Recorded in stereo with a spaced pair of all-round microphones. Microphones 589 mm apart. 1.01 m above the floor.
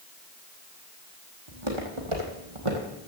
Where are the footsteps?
50° right (ahead or behind), 3 m; by 2.9 s 60° right (ahead or behind), 2.5 m.